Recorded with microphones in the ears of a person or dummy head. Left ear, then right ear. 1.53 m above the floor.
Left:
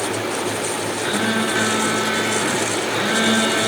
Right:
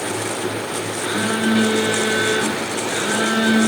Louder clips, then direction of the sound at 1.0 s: Even; 80° left.